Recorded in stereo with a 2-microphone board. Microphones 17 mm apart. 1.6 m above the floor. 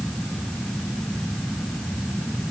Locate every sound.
Only background noise.